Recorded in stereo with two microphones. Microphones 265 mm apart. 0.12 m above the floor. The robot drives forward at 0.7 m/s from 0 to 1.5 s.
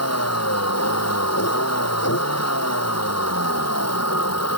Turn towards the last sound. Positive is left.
turn(degrees=75)  # may be behind; listen again after turning